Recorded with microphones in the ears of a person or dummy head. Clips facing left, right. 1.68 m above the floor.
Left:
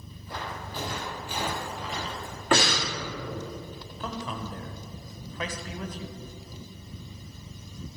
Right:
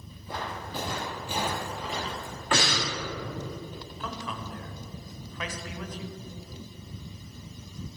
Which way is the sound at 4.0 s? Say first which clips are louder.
Left 3 dB; 30° left (ahead or behind).